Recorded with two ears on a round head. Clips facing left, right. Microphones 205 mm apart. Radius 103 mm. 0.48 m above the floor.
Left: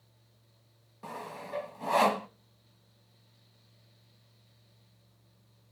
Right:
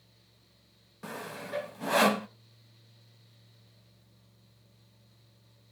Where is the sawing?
15° right (ahead or behind), 0.5 m.